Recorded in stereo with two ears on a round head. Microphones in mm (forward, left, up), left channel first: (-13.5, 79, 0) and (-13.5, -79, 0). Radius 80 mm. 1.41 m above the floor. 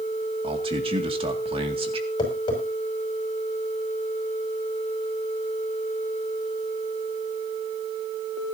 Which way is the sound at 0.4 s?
30° right (ahead or behind).